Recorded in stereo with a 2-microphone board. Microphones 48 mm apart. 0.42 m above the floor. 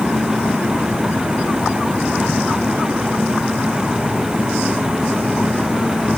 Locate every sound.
Only background noise.